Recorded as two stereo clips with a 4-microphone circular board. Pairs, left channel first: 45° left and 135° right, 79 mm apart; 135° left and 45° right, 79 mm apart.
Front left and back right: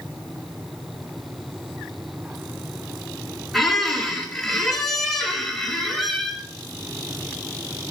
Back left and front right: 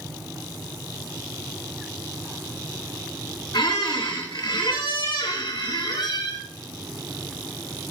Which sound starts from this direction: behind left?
A squeak, at 3.5 s.